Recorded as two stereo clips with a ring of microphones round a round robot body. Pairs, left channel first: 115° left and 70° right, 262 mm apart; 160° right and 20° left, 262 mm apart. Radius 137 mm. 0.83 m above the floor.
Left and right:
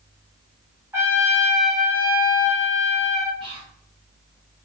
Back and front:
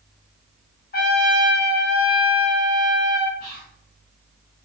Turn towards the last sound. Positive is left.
turn(degrees=-125)